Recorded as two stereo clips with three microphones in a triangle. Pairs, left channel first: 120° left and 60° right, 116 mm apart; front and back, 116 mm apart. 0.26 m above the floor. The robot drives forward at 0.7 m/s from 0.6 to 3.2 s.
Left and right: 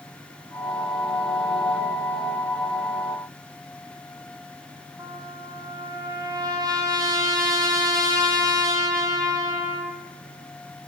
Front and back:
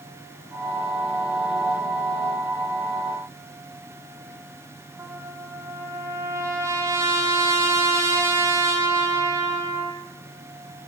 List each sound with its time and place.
5.0 s a trumpet: 115° right, 4.5 m